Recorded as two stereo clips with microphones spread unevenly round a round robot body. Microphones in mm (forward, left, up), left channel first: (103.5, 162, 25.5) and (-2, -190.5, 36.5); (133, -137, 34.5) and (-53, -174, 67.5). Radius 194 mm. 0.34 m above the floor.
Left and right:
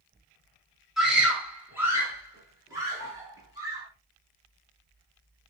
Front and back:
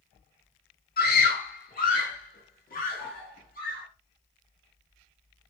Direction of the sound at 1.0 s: 20° right.